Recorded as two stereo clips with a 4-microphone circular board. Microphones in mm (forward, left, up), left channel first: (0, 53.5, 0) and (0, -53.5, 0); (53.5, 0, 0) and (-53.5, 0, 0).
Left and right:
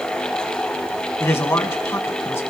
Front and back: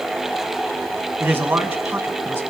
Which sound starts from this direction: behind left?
A man speaking, at 1.2 s.